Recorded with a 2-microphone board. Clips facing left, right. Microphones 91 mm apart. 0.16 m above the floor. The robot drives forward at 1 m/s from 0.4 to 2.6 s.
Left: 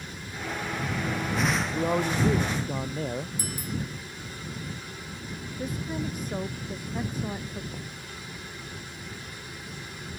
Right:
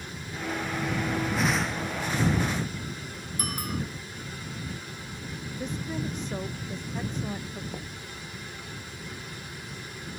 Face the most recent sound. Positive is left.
turn(degrees=-20)  # may be behind; listen again after turning